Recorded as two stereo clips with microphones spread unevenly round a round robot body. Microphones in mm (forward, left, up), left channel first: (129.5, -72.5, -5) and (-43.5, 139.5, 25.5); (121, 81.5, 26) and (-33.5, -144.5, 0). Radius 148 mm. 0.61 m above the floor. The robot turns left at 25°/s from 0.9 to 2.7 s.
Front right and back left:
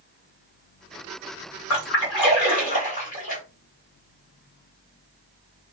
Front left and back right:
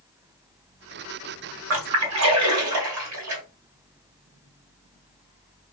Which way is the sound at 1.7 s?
90° right.